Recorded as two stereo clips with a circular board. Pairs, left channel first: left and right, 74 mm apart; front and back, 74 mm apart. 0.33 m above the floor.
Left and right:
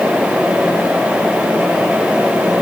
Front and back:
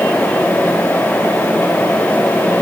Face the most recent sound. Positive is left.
No sound to turn to.